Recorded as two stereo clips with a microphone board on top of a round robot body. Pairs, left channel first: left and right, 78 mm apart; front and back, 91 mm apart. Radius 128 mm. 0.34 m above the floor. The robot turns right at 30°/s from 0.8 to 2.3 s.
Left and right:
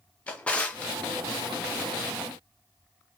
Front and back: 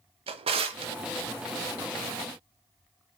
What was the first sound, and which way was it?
A drawer, 165° left.